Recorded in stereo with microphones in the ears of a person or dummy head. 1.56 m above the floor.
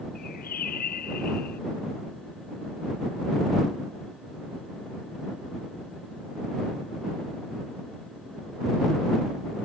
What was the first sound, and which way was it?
A bird, 50° left (ahead or behind).